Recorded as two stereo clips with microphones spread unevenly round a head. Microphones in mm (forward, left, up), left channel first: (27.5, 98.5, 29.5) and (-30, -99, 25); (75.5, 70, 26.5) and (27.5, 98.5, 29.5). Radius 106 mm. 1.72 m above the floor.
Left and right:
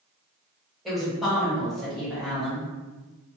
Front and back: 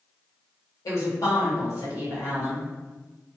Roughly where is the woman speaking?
Ahead.